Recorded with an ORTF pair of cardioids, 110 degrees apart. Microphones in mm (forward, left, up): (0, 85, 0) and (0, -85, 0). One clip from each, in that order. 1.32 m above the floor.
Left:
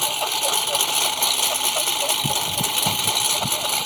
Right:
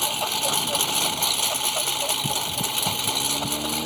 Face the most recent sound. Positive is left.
turn(degrees=70)